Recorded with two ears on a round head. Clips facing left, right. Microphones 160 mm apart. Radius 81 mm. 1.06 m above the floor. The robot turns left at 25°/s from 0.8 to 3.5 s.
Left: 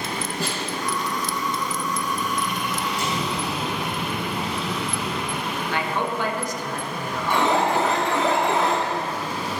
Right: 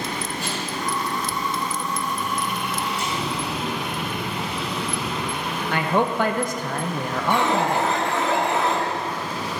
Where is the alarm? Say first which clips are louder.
Left 1 dB; 65° left (ahead or behind), 1.6 m.